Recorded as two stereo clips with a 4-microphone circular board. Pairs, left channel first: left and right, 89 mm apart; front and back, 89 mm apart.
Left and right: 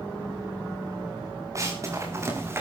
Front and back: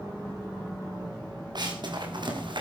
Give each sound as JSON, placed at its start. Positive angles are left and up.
{"t": 1.6, "sound": "running footsteps", "azimuth_deg": -145, "distance_m": 6.0}